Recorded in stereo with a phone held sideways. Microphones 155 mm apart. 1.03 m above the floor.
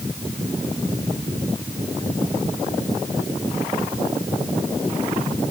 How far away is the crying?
I don't hear crying.